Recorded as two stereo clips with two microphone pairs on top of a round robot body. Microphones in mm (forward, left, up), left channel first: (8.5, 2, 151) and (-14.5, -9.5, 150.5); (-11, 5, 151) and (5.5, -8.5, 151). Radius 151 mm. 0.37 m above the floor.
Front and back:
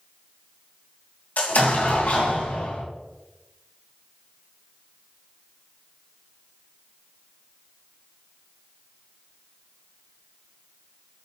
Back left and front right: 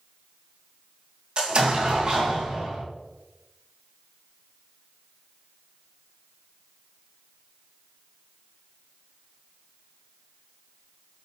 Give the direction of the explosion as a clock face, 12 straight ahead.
12 o'clock.